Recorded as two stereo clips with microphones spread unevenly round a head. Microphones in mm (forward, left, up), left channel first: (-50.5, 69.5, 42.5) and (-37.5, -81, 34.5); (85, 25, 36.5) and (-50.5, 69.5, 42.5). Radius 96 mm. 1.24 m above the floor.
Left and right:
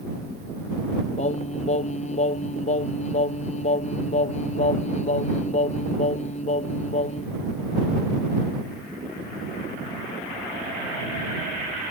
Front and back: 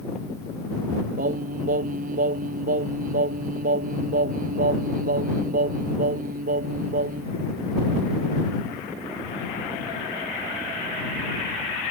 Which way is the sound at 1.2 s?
135° left.